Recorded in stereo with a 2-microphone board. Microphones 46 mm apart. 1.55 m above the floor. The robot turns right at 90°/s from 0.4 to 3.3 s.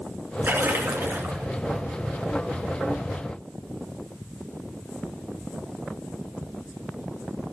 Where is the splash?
125° right, 3 m; by 1.5 s 30° right, 3 m.